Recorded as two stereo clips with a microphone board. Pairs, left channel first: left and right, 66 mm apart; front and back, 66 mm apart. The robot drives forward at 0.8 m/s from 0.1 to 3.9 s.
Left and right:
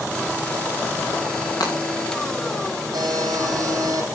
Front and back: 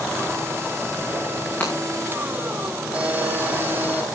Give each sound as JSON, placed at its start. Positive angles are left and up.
{"t": 1.6, "sound": "breaking glass", "azimuth_deg": 65, "distance_m": 5.5}
{"t": 2.9, "sound": "a buzzer", "azimuth_deg": -110, "distance_m": 5.5}